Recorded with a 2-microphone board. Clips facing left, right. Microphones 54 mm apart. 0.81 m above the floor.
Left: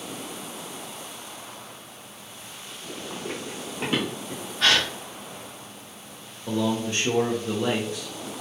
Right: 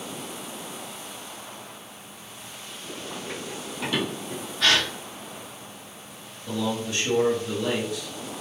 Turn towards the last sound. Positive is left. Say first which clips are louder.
# left 3 dB
turn(degrees=35)  # may be behind; listen again after turning